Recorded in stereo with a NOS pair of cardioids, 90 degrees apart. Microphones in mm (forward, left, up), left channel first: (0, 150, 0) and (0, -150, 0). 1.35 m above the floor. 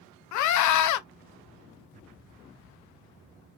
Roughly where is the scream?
Ahead left.